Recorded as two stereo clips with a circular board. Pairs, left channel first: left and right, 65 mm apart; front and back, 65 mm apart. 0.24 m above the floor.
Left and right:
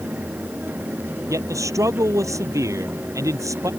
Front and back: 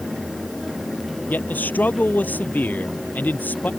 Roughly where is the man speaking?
Ahead right.